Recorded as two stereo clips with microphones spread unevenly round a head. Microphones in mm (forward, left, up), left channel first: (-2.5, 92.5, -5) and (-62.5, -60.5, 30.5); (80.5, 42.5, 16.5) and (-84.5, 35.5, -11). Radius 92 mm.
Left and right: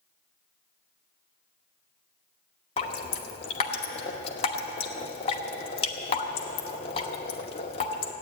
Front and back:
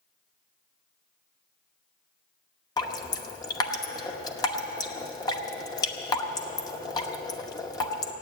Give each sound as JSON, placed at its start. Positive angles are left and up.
{"t": 2.8, "sound": "dripping", "azimuth_deg": 15, "distance_m": 1.0}